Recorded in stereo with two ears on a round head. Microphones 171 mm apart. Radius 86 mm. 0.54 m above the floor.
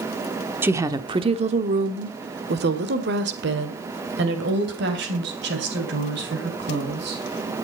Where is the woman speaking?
10° right (ahead or behind), 1.2 m; by 7.2 s 60° right (ahead or behind), 4.5 m.